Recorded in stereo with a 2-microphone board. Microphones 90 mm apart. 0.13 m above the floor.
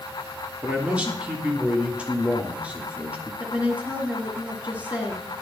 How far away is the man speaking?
About 2 m.